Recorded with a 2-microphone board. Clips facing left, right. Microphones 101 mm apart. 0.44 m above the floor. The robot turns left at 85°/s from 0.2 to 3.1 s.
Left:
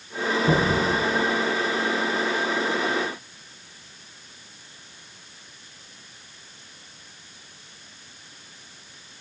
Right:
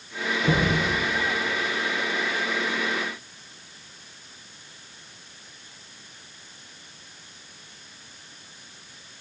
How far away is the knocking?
About 6.5 m.